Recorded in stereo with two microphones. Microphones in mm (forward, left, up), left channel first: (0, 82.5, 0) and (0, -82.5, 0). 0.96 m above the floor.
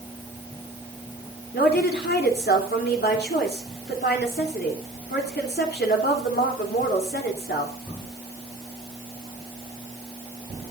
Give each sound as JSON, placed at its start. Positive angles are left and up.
{"t": 1.5, "sound": "a woman speaking", "side_deg": 80, "distance_m": 3.0}